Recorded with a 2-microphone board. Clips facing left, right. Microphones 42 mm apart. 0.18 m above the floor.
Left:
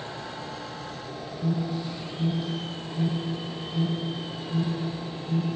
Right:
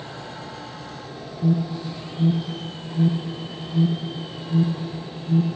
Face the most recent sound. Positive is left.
turn(degrees=-35)  # may be behind; listen again after turning